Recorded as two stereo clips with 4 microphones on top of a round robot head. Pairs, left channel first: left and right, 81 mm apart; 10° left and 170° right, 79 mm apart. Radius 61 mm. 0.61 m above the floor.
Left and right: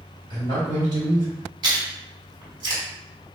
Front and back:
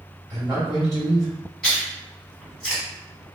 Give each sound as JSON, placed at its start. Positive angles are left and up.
{"t": 0.3, "sound": "a man speaking", "azimuth_deg": -115, "distance_m": 1.8}
{"t": 1.6, "sound": "chewing", "azimuth_deg": -75, "distance_m": 1.5}